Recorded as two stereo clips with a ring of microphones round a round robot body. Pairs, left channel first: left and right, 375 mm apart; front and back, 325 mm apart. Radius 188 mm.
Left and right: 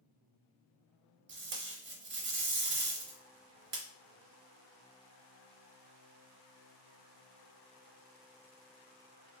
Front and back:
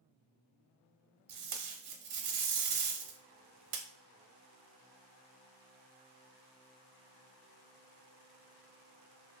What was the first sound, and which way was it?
Tape being pulled, 150° right.